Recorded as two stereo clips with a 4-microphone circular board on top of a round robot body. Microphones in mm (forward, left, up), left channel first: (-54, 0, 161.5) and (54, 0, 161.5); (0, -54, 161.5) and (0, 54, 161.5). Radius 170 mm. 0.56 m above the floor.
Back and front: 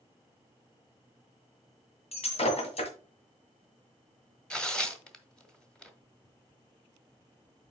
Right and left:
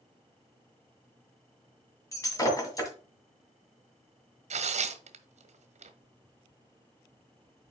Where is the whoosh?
I don't hear a whoosh.